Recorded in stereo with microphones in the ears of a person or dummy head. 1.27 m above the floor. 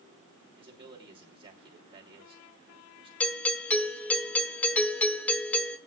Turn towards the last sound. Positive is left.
turn(degrees=15)  # may be behind; listen again after turning